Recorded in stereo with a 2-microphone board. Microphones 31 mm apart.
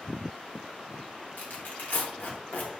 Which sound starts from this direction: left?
Tearing paper, at 1.4 s.